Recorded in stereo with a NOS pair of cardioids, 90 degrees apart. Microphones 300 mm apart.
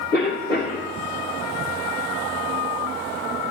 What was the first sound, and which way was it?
A cough, 35° left.